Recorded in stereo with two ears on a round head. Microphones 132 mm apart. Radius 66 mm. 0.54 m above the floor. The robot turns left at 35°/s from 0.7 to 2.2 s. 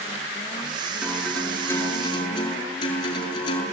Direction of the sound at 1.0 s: 170° right.